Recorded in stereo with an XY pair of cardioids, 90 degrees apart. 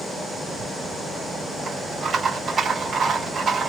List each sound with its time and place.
0.5 s a rattle: 50° right, 3 m